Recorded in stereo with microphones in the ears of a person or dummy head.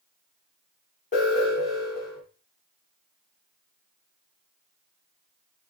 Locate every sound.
1.1 s an alarm: 35° left (ahead or behind), 6.5 m